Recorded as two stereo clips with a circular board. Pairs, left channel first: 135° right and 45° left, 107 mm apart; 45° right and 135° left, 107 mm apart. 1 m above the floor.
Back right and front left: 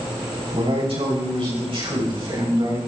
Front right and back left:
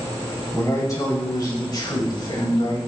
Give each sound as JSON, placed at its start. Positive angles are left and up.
{"t": 0.5, "sound": "a man speaking", "azimuth_deg": 20, "distance_m": 5.5}